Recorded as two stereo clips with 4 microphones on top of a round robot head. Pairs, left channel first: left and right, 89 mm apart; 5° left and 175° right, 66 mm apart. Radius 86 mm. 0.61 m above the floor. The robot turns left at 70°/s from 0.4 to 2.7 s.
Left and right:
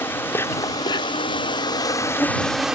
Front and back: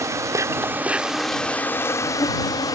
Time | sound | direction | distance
0.0 | an insect | 155° left | ?